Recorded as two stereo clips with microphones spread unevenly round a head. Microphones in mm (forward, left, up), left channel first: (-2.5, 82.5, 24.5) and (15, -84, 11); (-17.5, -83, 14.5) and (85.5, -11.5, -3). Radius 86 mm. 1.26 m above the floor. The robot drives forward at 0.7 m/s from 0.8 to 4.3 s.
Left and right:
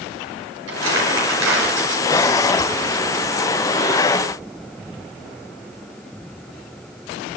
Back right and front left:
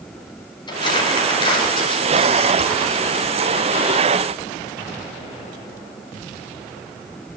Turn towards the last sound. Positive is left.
turn(degrees=-110)